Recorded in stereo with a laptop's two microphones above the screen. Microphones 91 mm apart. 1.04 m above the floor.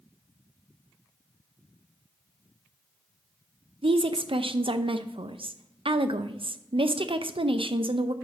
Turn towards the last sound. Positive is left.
turn(degrees=-75)  # may be behind; listen again after turning